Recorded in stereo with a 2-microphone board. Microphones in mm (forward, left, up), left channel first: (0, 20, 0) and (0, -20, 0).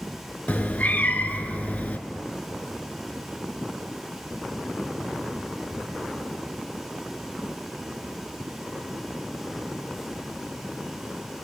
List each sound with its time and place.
0.5 s a cat meowing: 40° left (ahead or behind), 0.7 m